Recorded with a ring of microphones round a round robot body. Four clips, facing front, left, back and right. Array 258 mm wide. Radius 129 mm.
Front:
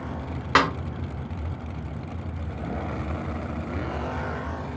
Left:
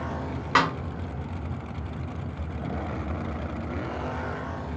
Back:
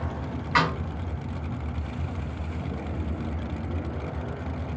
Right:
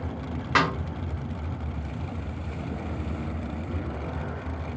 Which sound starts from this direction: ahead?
A snare drum, at 0.6 s.